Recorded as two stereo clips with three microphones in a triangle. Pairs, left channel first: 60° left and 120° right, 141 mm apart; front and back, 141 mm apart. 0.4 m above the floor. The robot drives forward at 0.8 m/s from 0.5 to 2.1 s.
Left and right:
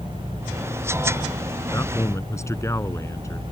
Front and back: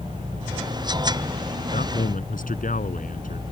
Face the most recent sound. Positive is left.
turn(degrees=-10)